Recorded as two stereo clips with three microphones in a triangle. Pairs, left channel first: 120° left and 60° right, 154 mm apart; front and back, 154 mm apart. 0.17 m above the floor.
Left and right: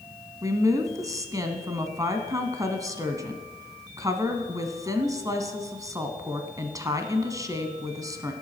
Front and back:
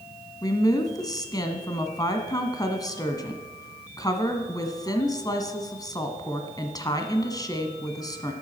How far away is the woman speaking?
About 1.3 m.